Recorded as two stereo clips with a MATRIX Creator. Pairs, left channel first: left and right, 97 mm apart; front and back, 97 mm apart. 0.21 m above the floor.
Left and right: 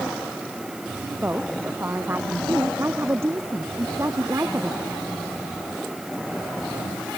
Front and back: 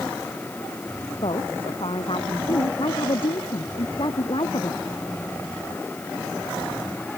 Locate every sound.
1.2 s a woman speaking: 20° right; by 4.8 s 30° right